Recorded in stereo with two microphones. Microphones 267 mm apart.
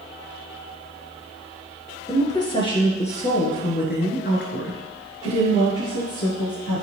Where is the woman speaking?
10° left (ahead or behind), 2.5 m; by 6.8 s 65° left (ahead or behind), 2.5 m.